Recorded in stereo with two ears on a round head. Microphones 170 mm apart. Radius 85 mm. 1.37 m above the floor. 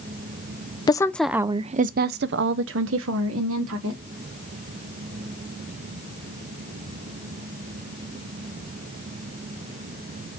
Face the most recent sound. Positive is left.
turn(degrees=-85)